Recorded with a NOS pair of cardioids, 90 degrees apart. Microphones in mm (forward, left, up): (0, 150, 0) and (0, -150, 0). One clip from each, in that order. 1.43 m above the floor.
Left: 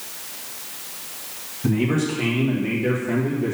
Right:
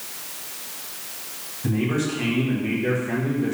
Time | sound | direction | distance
1.6 | a man speaking | 25° left | 2.5 m